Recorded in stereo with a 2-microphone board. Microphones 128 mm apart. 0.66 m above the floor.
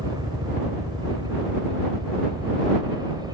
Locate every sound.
0.0 s a helicopter: 35° right (ahead or behind); by 3.4 s 30° right (ahead or behind)